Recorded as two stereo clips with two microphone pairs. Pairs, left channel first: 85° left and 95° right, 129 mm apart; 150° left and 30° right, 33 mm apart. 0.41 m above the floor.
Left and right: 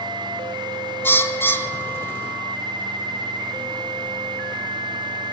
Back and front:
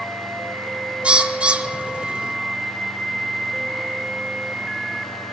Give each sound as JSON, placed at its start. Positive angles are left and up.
{"t": 1.0, "sound": "a bird", "azimuth_deg": 15, "distance_m": 1.2}